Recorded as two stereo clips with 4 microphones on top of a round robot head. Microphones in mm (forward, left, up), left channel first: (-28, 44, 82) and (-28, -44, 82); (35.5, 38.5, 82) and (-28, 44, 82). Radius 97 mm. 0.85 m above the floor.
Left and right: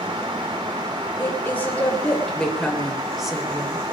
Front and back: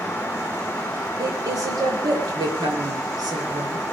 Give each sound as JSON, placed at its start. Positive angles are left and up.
{"t": 1.2, "sound": "a woman speaking", "azimuth_deg": 155, "distance_m": 3.5}